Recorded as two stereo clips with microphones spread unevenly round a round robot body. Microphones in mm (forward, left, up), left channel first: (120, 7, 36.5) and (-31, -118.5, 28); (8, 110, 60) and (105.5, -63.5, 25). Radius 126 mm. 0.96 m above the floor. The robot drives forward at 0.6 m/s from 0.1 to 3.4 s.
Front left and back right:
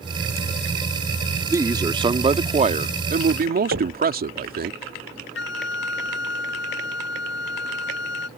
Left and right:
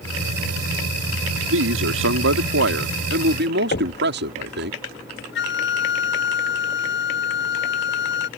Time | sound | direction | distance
1.5 | a man speaking | 65° right | ?
3.7 | knocking | 170° left | ?
5.3 | a flute | 90° left | ?